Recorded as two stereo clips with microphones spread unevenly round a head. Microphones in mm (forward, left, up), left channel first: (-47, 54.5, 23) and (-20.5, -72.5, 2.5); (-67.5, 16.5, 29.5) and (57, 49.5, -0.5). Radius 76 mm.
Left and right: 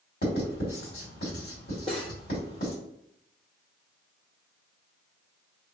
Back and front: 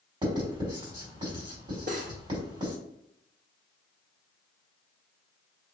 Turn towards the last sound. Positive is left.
turn(degrees=40)